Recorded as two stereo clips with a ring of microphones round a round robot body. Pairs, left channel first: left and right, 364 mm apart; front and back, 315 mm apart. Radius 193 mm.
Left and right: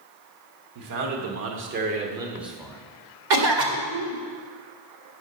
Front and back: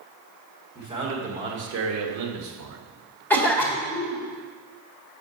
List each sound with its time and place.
0.8 s a man speaking: 100° right, 1.5 m; by 2.8 s 175° left, 1.8 m
3.3 s a cough: 85° right, 1.7 m